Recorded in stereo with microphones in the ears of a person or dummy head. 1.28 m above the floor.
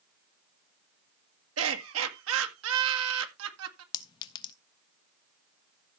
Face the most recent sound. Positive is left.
turn(degrees=30)  # may be behind; listen again after turning